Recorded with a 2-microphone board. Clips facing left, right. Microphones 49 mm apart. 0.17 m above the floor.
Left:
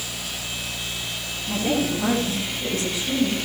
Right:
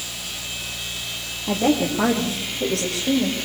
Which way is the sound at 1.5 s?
80° right.